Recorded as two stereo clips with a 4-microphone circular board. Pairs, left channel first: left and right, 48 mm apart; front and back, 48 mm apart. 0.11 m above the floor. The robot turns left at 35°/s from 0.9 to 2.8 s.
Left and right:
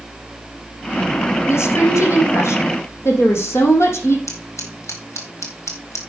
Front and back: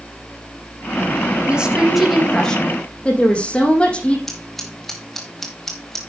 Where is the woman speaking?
115° left, 4.5 m; by 4.2 s 70° left, 4.5 m.